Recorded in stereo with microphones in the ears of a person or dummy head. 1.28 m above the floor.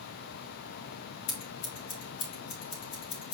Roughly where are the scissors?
Left.